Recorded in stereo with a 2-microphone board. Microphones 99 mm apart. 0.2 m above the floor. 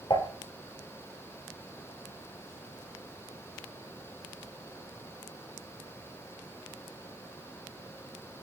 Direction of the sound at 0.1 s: 55° left (ahead or behind).